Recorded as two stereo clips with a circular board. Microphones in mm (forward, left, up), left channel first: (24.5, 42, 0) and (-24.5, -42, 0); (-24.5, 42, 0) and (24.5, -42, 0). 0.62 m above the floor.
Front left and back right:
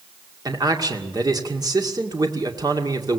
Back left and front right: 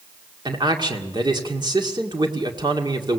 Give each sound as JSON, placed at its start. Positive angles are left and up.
{"t": 0.5, "sound": "a man speaking", "azimuth_deg": -85, "distance_m": 2.0}